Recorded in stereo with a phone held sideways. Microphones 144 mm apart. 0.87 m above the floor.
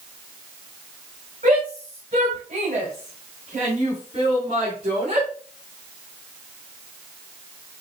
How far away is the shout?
About 5 m.